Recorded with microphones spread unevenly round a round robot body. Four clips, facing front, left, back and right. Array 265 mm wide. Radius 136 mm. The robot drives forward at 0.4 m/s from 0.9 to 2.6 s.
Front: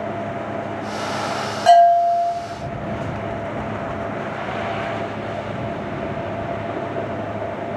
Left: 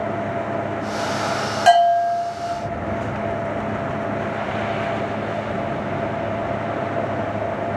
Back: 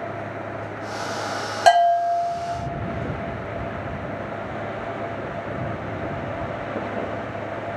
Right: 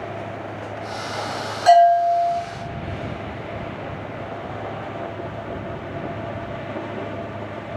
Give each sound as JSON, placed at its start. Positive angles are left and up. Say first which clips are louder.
{"t": 1.7, "sound": "a bell", "louder": "right 2 dB, front 4 dB", "azimuth_deg": 175, "distance_m": 0.9}